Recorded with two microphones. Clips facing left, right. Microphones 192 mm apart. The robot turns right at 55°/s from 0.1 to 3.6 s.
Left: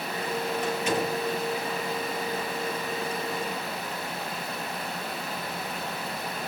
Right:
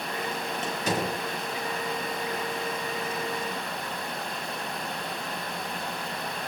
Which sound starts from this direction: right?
A door slam, at 0.6 s.